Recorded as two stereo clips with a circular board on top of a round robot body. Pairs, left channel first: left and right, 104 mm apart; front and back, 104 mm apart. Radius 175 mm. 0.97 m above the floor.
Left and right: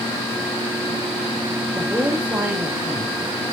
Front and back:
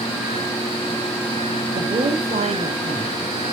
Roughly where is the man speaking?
Behind.